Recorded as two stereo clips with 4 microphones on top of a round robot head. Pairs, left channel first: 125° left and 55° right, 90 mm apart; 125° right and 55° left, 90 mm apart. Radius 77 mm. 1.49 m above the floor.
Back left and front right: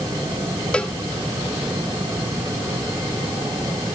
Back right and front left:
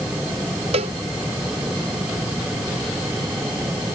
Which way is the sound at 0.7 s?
45° left.